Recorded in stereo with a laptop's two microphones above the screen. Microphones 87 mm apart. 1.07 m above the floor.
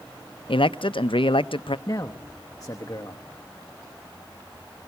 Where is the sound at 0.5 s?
75° left (ahead or behind), 0.6 m.